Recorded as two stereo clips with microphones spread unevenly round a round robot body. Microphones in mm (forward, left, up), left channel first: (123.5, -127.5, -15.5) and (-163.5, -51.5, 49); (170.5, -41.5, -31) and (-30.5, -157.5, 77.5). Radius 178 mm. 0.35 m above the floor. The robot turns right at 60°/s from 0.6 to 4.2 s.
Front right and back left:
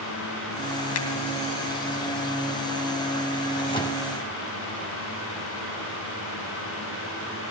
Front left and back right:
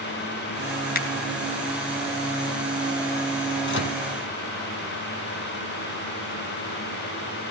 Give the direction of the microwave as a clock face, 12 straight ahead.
10 o'clock.